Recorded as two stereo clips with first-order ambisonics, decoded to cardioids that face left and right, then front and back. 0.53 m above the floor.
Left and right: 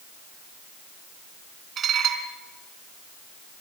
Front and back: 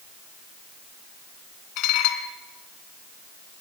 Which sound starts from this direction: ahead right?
Dishes clattering, at 1.8 s.